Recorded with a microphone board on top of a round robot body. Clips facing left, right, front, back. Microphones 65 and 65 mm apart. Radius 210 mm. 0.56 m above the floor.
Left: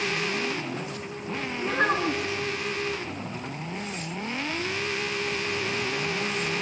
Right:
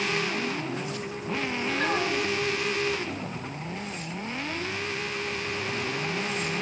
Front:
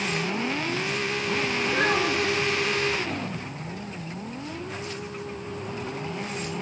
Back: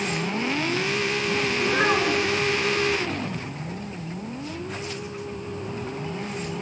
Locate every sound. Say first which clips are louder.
1.6 s a child speaking: left 4 dB, back 2 dB; 125° left, 6 m